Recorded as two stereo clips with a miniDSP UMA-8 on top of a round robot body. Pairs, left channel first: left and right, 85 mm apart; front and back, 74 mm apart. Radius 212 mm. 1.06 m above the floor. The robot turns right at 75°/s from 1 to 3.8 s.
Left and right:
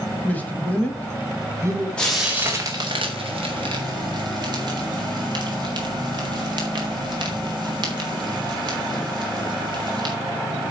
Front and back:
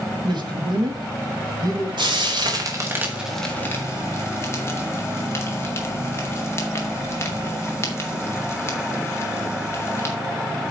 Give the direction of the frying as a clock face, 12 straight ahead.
6 o'clock.